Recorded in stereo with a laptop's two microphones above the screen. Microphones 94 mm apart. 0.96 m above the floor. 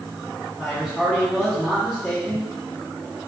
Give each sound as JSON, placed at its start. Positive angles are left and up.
{"t": 0.6, "sound": "a man speaking", "side_deg": 0, "distance_m": 0.7}